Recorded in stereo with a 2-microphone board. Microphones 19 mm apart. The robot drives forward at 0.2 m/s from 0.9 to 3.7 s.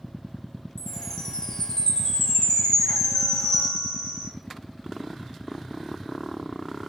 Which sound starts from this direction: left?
A chime, at 0.8 s.